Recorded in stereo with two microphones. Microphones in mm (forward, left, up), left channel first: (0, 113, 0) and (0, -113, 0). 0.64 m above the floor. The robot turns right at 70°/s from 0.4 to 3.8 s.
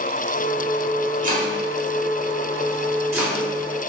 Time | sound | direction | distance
1.2 | chopping | 35° right (ahead or behind) | 1.4 m